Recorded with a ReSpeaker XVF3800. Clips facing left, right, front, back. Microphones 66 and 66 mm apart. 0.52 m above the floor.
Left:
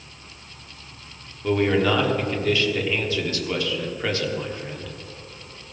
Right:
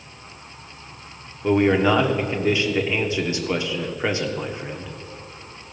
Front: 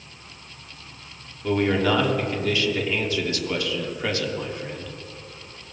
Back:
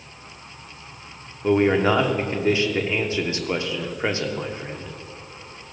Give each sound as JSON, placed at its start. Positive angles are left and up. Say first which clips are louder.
{"t": 1.4, "sound": "a man speaking", "louder": "right 3 dB, back 3 dB", "azimuth_deg": -135, "distance_m": 1.0}